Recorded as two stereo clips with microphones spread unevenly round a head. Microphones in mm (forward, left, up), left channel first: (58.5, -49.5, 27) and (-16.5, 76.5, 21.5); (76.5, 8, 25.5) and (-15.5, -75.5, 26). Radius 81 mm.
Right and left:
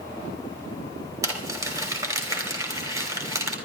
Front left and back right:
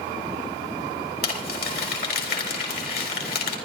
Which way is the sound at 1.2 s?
50° left.